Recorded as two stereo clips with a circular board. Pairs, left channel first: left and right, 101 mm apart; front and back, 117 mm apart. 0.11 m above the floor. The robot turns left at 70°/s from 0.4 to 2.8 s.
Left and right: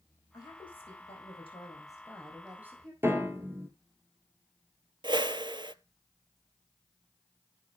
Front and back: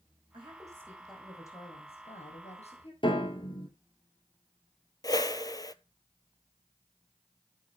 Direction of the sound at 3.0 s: 30° right.